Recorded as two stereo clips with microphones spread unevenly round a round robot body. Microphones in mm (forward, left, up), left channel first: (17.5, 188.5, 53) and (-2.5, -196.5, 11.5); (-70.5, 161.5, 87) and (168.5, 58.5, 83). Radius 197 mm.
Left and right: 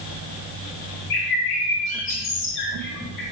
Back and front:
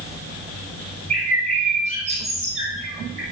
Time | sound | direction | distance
1.1 | a bird | 40° left | 2 m